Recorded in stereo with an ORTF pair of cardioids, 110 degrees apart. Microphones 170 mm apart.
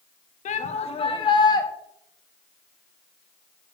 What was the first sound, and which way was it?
A shout, 45° left.